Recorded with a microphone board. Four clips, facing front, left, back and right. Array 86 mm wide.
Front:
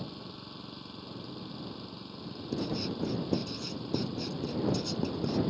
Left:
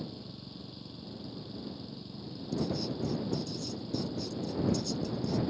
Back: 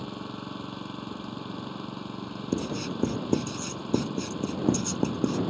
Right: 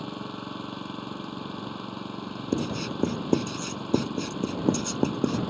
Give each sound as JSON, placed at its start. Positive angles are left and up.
{"t": 0.0, "sound": "an engine running", "azimuth_deg": -120}
{"t": 2.5, "sound": "writing", "azimuth_deg": -110}